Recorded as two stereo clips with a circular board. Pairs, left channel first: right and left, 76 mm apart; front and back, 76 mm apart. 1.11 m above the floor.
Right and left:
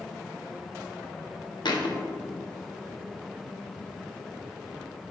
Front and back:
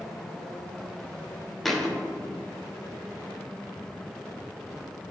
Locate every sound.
1.6 s a thud: 85° right, 0.8 m